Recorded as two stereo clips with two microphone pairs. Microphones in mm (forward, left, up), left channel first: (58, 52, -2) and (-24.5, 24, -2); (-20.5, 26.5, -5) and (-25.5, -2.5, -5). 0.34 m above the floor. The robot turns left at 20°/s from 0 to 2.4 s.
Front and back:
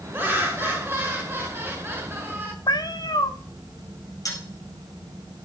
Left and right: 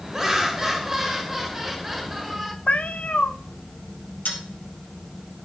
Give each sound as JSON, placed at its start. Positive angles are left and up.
{"t": 0.1, "sound": "laughter", "azimuth_deg": -135, "distance_m": 1.5}
{"t": 2.7, "sound": "a cat meowing", "azimuth_deg": 45, "distance_m": 0.7}
{"t": 4.2, "sound": "a dropped coin", "azimuth_deg": 65, "distance_m": 2.5}